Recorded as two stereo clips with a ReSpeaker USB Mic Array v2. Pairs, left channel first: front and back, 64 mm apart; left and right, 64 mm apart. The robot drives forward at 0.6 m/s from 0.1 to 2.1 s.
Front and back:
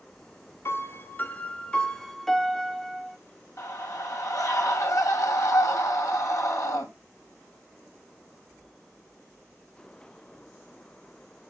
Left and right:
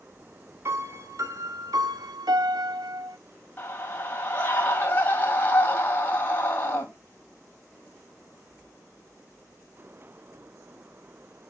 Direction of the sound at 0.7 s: 45° right.